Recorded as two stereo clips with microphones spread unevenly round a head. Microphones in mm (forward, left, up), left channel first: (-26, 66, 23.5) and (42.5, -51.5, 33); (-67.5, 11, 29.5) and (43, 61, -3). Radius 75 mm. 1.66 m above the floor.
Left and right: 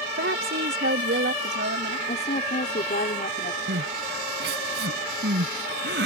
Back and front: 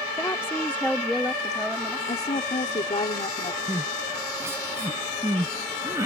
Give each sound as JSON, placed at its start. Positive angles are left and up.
{"t": 0.2, "sound": "a woman speaking", "azimuth_deg": -80}
{"t": 2.1, "sound": "a woman speaking", "azimuth_deg": 165}
{"t": 3.7, "sound": "crying", "azimuth_deg": -50}